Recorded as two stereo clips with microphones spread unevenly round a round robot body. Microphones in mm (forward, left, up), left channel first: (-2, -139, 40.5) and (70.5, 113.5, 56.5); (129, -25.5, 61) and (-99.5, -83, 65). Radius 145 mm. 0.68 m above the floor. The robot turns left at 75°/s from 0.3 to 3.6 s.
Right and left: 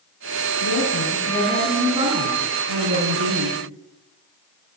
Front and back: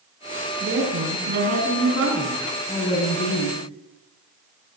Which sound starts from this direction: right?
A woman speaking, at 0.6 s.